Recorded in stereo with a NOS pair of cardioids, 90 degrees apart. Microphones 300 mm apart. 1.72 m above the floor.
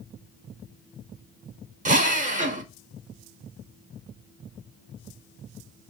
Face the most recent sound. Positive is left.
turn(degrees=-25)